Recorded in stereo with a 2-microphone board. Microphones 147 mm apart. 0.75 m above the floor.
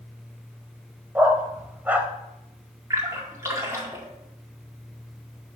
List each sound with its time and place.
1.1 s a dog barking: 10° right (ahead or behind), 0.9 m
2.9 s a splash: 20° right (ahead or behind), 2 m